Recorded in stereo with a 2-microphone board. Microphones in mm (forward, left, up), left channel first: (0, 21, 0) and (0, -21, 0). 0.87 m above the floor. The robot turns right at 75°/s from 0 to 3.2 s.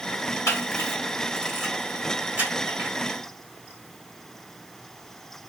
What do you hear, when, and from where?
0.5 s a camera shutter: 80° left, 1.8 m; by 2.9 s 85° right, 1.8 m